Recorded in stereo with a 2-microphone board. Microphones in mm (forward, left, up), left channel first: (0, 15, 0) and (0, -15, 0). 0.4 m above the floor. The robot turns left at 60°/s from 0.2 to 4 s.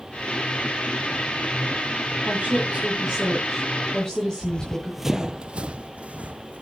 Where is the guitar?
No guitar in this recording.